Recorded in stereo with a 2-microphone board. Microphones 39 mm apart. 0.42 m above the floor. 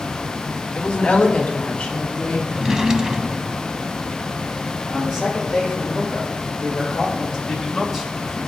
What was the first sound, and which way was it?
A woman speaking, 25° left (ahead or behind).